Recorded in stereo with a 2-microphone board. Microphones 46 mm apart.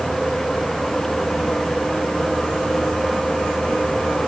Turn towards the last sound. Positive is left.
No sound to turn to.